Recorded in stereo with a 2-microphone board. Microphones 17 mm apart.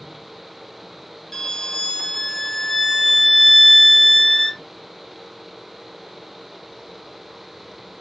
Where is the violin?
15° left (ahead or behind), 0.7 m.